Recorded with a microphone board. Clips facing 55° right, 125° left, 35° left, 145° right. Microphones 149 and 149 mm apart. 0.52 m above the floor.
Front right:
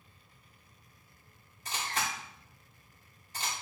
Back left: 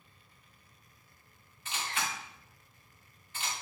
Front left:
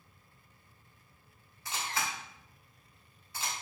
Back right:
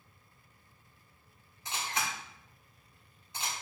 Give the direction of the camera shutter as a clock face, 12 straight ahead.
3 o'clock.